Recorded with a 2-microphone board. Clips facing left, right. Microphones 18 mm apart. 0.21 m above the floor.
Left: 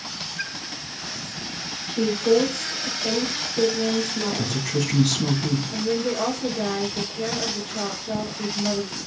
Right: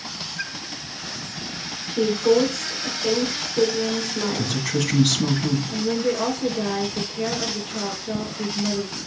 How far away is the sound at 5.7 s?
About 4 m.